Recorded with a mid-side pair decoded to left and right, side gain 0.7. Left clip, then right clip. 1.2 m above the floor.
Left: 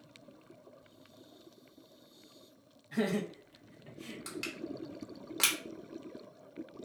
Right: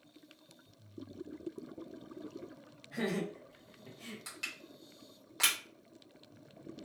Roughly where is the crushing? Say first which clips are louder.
Left 3 dB; ahead.